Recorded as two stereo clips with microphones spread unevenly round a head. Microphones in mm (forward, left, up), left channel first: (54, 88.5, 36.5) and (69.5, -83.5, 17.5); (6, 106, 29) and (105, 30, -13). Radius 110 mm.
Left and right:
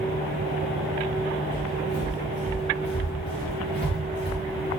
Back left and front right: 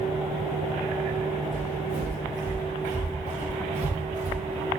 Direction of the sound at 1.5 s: 35° left.